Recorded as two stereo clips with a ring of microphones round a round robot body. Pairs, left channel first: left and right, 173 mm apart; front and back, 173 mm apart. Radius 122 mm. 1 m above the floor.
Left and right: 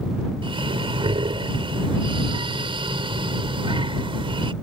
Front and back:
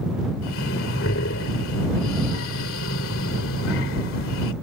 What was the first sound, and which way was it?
Breathing, 30° right.